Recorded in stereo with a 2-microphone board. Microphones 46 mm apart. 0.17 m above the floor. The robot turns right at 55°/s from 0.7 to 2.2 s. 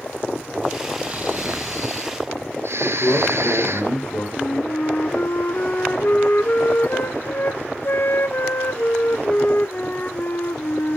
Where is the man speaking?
55° left (ahead or behind), 9 m.